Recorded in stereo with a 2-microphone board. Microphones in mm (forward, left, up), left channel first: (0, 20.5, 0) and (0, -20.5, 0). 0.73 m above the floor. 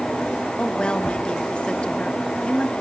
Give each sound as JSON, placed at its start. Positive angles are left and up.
{"t": 0.6, "sound": "a woman speaking", "side_deg": 25, "distance_m": 1.7}